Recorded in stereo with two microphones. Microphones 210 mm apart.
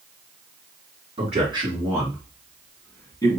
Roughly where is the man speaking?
Right.